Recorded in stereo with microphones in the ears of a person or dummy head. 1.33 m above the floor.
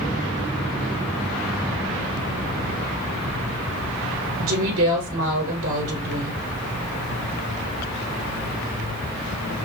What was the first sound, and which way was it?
A woman speaking, 75° right (ahead or behind).